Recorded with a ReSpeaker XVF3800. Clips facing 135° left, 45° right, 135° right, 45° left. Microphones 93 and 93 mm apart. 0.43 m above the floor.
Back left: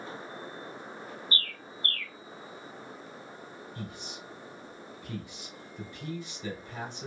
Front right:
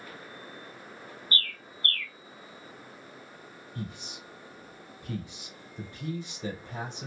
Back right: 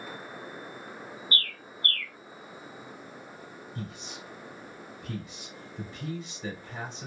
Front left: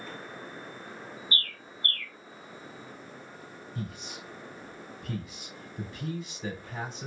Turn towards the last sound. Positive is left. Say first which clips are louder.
# front right 4 dB, front left 2 dB
turn(degrees=-40)